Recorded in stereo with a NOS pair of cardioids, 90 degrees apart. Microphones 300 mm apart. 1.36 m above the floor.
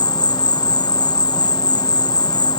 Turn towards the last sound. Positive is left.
turn(degrees=15)